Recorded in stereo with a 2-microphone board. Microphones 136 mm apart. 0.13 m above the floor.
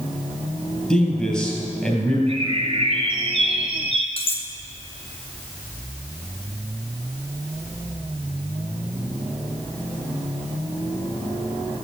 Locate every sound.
0.9 s a man speaking: 5° left (ahead or behind), 3.5 m
2.3 s a bird: 40° right (ahead or behind), 2 m
4.2 s cutlery clinking: 45° left (ahead or behind), 1.3 m